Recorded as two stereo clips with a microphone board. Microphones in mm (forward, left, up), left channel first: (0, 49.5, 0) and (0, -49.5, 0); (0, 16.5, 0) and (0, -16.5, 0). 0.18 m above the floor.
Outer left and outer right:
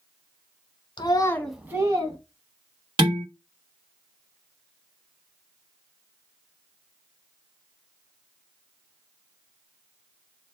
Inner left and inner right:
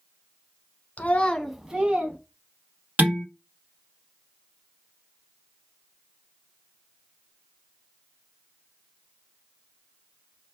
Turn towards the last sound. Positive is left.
turn(degrees=-55)  # may be behind; listen again after turning